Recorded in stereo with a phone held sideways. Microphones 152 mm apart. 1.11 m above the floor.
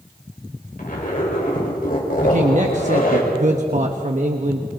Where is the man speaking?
50° right (ahead or behind), 1.2 m.